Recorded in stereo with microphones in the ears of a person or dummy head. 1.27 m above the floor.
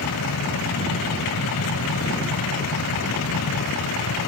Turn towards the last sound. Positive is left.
turn(degrees=80)